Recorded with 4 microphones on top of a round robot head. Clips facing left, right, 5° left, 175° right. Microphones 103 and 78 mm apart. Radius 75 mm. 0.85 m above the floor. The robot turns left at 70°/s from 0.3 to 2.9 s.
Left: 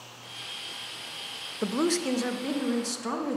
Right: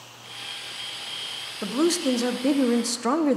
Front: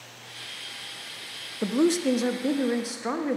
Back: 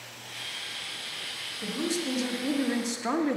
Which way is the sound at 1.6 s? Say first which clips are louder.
Right 4 dB, front 9 dB; 10° left.